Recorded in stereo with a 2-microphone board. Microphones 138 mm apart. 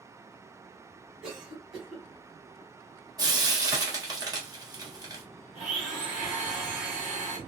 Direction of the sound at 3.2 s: 30° right (ahead or behind).